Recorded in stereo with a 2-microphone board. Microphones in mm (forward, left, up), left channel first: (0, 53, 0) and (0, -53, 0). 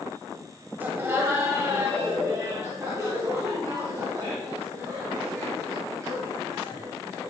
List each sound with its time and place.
0.8 s laughter: 20° right (ahead or behind), 1.0 m; by 7.3 s 30° right (ahead or behind), 4 m